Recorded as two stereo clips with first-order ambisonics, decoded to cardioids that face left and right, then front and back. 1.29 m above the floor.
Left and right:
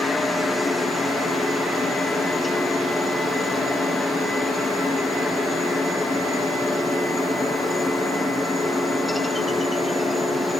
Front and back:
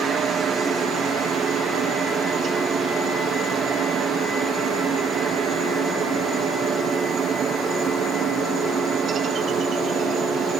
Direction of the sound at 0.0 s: 160° left.